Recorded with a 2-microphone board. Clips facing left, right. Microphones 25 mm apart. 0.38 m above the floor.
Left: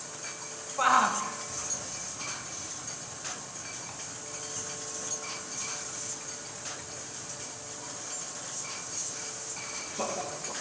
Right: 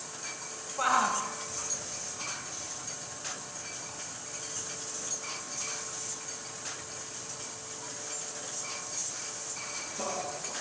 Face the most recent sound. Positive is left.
turn(degrees=25)  # may be behind; listen again after turning